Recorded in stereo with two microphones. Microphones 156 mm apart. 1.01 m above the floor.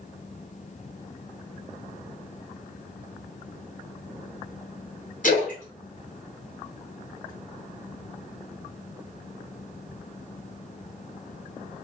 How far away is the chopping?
I don't hear chopping.